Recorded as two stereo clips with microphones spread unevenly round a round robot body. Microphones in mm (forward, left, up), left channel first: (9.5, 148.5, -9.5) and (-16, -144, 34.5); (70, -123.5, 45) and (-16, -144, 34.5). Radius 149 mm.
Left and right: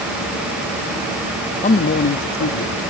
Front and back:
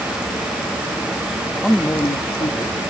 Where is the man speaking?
110° left, 0.5 m; by 2.8 s 50° left, 1.0 m.